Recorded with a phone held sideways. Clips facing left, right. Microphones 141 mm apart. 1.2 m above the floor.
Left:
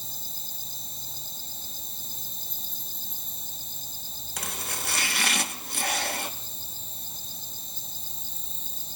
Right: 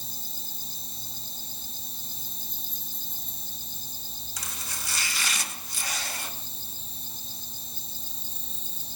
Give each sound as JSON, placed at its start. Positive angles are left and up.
{"t": 0.0, "sound": "an insect", "side_deg": 50, "distance_m": 3.5}
{"t": 4.4, "sound": "chopping", "side_deg": 60, "distance_m": 1.3}